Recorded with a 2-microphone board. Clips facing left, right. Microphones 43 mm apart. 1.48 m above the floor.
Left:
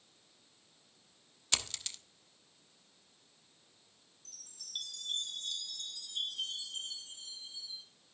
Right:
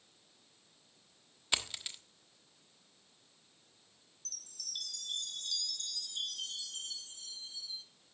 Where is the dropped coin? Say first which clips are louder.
Right 1 dB; 15° right (ahead or behind), 1.2 m.